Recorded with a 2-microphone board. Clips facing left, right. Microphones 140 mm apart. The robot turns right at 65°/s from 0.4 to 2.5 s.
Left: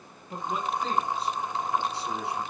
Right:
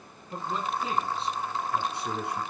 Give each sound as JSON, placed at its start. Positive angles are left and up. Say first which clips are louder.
{"t": 0.3, "sound": "a man speaking", "louder": "left 1 dB", "azimuth_deg": 160, "distance_m": 2.5}